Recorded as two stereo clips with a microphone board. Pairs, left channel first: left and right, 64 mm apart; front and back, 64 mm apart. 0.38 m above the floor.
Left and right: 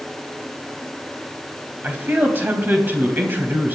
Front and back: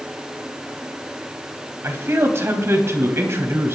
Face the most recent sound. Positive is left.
turn(degrees=-145)